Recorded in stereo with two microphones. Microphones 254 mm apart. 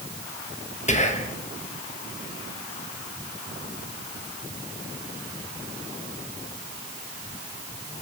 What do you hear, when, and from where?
0.9 s whispering: 30° left (ahead or behind), 0.8 m